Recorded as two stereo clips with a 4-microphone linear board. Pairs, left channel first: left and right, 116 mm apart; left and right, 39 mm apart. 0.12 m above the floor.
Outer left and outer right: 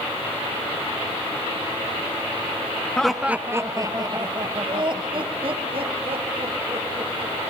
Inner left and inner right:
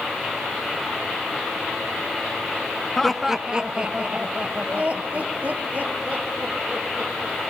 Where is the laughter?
5° left (ahead or behind), 1.3 m; by 7.3 s 55° right (ahead or behind), 7 m.